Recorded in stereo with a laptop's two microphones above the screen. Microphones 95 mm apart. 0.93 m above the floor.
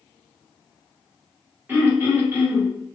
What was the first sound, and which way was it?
Throat clearing, 20° right (ahead or behind).